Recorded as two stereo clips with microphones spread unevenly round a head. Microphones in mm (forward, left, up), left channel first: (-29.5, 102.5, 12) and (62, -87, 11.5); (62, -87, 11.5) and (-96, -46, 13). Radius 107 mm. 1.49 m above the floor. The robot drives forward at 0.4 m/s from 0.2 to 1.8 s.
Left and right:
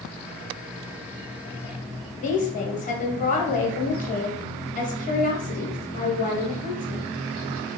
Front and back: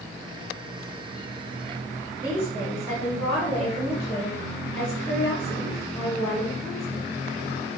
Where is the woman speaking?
60° left, 0.7 m.